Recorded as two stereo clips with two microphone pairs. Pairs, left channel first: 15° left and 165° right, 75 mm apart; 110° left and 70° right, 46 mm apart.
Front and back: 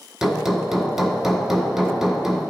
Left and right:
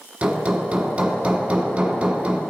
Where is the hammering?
85° right, 1.1 m.